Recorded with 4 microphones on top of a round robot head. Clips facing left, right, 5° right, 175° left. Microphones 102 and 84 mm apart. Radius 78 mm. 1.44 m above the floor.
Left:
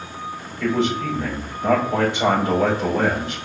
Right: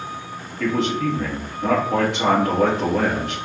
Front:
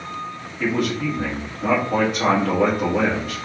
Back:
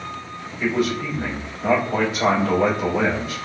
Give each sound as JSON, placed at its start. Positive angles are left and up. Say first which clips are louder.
{"t": 0.6, "sound": "a man speaking", "louder": "even, even", "azimuth_deg": -50, "distance_m": 1.8}